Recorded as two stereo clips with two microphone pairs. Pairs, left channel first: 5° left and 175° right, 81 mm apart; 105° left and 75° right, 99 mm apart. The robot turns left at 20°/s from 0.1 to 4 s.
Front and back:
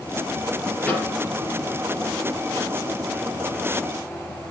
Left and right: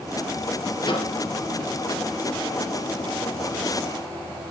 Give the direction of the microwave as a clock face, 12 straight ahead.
10 o'clock.